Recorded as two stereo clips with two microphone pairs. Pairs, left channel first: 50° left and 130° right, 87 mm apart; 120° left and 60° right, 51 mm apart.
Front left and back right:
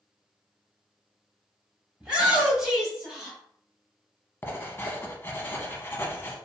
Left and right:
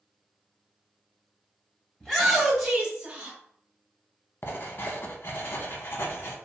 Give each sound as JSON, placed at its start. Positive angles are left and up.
{"t": 2.0, "sound": "a shout", "azimuth_deg": 180, "distance_m": 1.4}
{"t": 4.4, "sound": "writing", "azimuth_deg": 105, "distance_m": 0.6}